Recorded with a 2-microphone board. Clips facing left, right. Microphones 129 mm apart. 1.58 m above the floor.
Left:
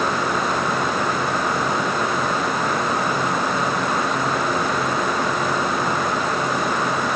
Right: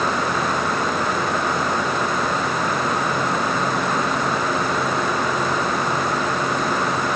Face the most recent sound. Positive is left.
No sound to turn to.